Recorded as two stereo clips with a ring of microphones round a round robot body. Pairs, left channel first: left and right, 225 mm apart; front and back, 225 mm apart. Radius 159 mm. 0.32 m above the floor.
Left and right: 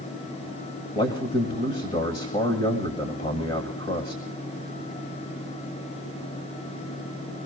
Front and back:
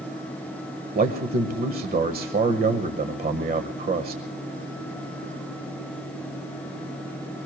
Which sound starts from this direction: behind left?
A man speaking, at 0.9 s.